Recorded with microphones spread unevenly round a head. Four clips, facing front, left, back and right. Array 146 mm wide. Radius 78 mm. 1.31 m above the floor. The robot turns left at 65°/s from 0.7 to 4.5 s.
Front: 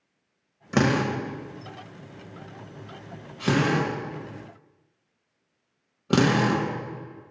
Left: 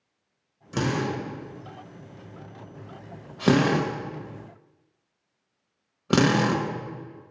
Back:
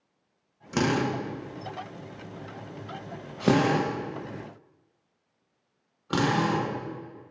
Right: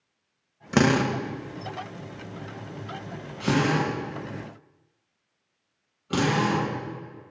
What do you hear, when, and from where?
0.7 s a drill: 50° right, 1.0 m; by 6.7 s 65° left, 1.0 m